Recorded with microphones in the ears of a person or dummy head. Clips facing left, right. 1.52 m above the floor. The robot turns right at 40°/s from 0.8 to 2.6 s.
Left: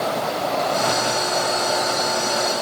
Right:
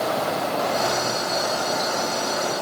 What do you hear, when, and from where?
Only background noise.